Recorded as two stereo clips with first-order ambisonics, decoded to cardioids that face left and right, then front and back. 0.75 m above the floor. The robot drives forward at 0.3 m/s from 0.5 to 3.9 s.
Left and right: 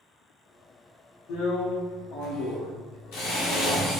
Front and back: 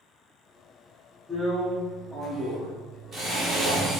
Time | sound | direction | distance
1.3 | a drill | 75° left | 1.0 m